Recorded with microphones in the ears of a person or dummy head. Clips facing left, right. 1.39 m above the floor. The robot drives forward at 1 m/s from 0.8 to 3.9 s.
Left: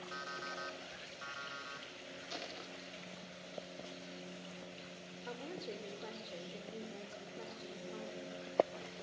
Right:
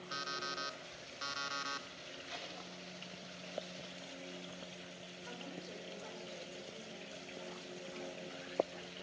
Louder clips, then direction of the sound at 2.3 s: Left 3 dB; 35° left (ahead or behind).